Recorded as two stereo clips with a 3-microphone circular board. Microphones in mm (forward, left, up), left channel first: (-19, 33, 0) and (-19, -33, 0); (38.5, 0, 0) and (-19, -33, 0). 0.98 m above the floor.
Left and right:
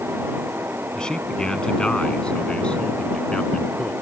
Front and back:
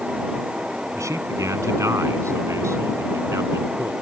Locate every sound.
0.9 s a man speaking: 170° left; by 3.9 s 165° left